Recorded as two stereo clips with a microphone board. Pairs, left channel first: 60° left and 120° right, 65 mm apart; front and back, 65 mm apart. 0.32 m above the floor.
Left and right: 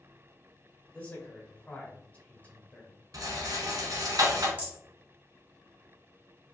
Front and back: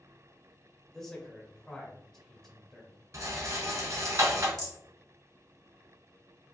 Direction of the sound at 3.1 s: 145° right.